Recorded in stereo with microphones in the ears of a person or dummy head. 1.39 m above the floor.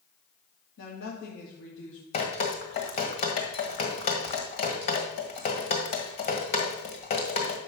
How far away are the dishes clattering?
No dishes clattering in this recording.